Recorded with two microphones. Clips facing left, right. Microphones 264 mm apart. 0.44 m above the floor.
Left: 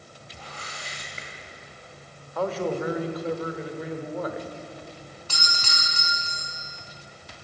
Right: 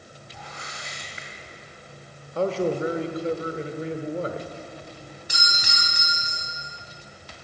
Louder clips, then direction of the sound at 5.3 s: Right 1 dB; 15° right (ahead or behind).